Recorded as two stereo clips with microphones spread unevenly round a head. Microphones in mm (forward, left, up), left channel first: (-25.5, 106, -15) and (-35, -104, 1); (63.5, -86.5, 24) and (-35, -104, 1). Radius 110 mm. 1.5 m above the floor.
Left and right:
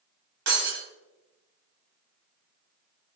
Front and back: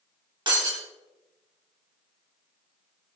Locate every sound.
0.5 s breaking glass: 125° right, 4 m